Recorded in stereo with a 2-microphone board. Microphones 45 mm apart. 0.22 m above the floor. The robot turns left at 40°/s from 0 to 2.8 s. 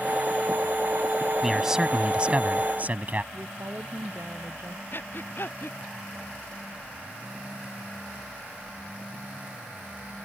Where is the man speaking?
10° right; by 3.2 s 65° right.